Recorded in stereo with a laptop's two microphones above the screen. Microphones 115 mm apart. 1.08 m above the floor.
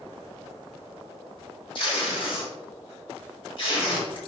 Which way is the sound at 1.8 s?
50° left (ahead or behind).